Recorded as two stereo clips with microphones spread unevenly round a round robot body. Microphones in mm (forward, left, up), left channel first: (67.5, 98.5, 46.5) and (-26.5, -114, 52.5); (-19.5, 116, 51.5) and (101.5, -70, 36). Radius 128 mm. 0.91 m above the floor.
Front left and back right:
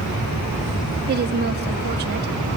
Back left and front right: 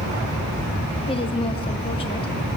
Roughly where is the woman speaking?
Behind.